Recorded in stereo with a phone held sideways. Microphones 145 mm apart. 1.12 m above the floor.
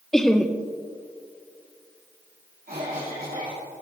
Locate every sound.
0.1 s laughter: 5° left (ahead or behind), 0.6 m
2.7 s a cough: 75° right (ahead or behind), 3 m